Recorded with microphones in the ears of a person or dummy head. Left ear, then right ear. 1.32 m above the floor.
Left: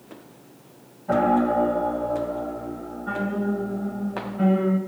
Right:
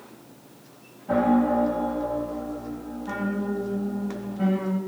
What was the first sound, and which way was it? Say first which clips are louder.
A piano: left 2 dB; 75° left (ahead or behind).